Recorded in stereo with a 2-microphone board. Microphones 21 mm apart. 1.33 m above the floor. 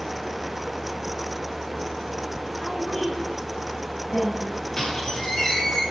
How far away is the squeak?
About 6 m.